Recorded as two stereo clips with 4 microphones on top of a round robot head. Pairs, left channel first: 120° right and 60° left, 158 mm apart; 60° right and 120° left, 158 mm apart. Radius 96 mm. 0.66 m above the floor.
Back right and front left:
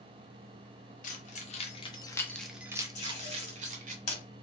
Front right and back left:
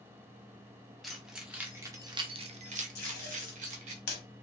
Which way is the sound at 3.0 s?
75° right.